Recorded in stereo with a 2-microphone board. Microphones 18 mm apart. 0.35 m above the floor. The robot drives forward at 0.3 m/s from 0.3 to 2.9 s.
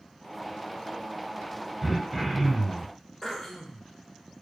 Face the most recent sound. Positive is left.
turn(degrees=5)  # may be behind; listen again after turning